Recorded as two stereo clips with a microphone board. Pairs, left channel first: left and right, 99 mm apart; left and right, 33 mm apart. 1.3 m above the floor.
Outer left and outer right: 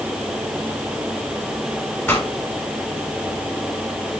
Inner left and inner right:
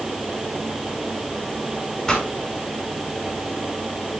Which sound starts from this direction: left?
A pop, at 2.1 s.